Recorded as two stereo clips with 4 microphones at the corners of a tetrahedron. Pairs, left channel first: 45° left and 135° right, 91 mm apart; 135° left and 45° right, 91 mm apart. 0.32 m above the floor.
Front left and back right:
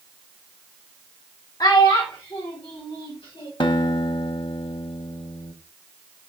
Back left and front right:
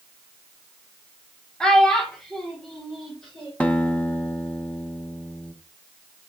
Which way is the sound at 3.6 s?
60° left.